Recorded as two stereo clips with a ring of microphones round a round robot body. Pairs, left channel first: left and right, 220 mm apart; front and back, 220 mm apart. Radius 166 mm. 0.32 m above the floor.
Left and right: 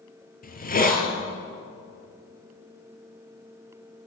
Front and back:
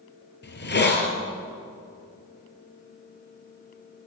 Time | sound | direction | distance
0.4 | a hiss | 40° left | 4 m